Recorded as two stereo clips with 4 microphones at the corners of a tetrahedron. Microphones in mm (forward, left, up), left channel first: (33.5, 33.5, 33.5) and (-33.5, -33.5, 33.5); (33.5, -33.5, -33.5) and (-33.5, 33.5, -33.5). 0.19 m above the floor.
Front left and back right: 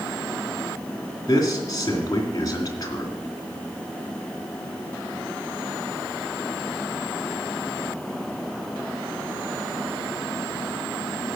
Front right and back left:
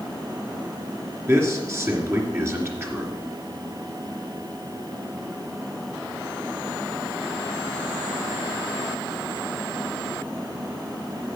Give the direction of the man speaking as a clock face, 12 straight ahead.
9 o'clock.